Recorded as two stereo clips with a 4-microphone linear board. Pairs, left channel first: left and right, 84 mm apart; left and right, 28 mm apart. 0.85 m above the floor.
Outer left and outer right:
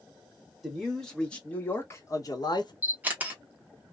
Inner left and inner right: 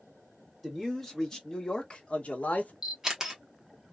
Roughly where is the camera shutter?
Centre.